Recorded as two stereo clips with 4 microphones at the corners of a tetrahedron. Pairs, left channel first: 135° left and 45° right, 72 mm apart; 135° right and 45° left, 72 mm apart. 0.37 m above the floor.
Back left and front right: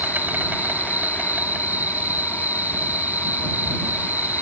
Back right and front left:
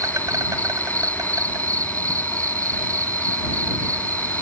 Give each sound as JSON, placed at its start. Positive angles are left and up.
{"t": 0.0, "sound": "an insect", "azimuth_deg": 15}